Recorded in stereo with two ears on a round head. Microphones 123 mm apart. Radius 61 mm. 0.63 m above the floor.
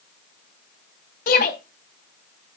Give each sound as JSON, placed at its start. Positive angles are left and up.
{"t": 1.3, "sound": "a shout", "side_deg": 65, "distance_m": 4.5}